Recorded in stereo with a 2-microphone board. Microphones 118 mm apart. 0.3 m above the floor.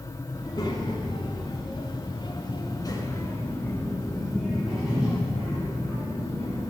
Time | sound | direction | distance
0.3 | a child speaking | 40° left (ahead or behind) | 2 m